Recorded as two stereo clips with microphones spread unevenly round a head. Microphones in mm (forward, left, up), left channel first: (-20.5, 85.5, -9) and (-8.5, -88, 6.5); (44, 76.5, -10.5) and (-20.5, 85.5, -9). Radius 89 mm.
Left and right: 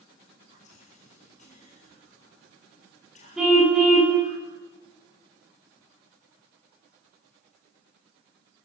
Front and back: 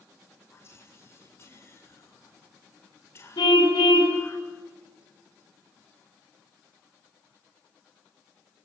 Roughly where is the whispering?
Ahead left.